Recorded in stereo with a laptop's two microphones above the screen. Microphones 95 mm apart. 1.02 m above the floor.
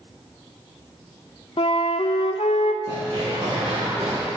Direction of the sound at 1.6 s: 70° left (ahead or behind).